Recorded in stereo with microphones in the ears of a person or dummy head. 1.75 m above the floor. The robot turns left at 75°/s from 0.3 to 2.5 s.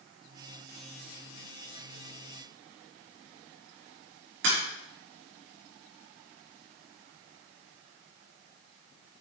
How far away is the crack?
About 6 m.